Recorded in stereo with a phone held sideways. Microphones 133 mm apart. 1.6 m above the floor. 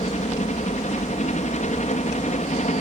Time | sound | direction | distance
0.0 | a helicopter | 65° left (ahead or behind) | ?